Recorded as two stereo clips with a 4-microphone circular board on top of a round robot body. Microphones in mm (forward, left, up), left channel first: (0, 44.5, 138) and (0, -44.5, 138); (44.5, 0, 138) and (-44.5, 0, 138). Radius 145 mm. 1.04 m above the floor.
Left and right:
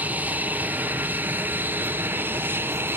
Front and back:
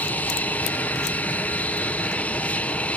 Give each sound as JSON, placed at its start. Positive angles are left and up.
{"t": 0.0, "sound": "an aircraft", "azimuth_deg": -45}